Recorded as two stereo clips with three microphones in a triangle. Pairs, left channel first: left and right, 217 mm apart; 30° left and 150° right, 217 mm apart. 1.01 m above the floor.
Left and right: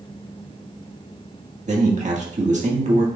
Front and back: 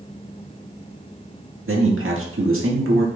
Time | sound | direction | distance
1.7 | a man speaking | 145° right | 1.8 m